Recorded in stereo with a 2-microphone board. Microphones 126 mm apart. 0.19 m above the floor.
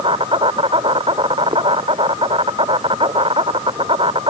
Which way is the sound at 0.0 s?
45° right (ahead or behind).